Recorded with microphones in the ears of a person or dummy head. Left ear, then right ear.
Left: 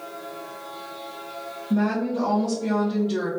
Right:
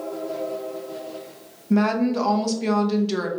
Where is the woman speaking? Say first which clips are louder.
Right 4 dB; 60° right (ahead or behind), 0.7 m.